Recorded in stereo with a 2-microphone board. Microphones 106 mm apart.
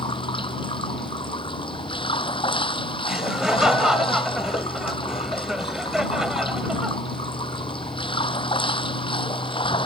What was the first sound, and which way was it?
Running water, 55° left (ahead or behind).